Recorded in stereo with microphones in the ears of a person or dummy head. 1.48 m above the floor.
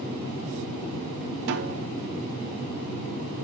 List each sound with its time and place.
1.5 s a snare drum: 60° right (ahead or behind), 1.0 m